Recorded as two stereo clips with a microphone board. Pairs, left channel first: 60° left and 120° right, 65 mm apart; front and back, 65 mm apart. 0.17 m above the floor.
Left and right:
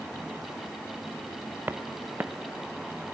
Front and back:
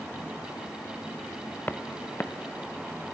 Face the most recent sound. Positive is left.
turn(degrees=-65)